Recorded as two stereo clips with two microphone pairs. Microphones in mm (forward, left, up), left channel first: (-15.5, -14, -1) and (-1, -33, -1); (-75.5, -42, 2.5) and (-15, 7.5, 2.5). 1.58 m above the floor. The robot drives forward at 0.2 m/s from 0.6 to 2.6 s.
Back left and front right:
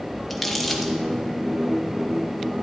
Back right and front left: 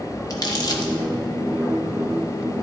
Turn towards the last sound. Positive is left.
turn(degrees=-155)